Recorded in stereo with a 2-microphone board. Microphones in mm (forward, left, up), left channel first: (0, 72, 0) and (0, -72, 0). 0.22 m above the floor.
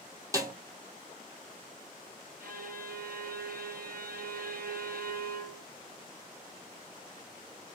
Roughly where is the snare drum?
Right.